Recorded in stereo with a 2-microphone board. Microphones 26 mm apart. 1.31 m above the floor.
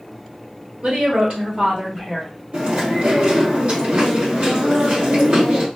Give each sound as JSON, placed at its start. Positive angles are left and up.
{"t": 0.8, "sound": "a woman speaking", "side_deg": -60, "distance_m": 1.4}
{"t": 2.5, "sound": "chewing", "side_deg": -55, "distance_m": 1.2}